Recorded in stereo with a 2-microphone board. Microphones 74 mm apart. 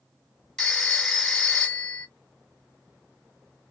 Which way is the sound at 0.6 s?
10° left (ahead or behind).